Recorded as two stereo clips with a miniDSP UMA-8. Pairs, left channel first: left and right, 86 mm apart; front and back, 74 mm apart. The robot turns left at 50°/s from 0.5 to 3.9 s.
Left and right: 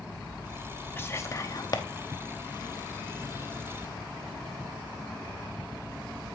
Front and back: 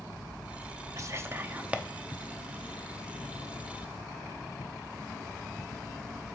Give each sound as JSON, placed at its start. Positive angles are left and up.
{"t": 1.0, "sound": "whispering", "azimuth_deg": 150, "distance_m": 0.7}